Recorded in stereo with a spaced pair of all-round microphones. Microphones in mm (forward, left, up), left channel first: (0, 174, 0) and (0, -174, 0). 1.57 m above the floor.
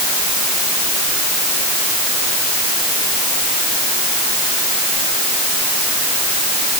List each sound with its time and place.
Only background noise.